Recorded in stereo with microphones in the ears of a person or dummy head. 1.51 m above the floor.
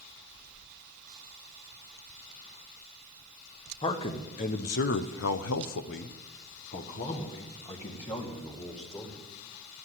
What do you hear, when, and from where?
3.8 s a man speaking: 25° left (ahead or behind), 1.2 m; by 9.2 s 20° left (ahead or behind), 2.5 m